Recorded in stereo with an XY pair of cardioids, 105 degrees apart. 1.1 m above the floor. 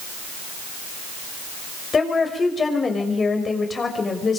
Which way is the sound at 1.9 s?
35° left.